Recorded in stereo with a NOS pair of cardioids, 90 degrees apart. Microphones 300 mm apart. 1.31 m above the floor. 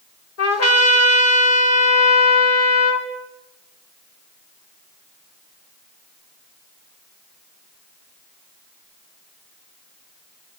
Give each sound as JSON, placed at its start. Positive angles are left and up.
{"t": 0.4, "sound": "a trumpet", "azimuth_deg": 55, "distance_m": 5.5}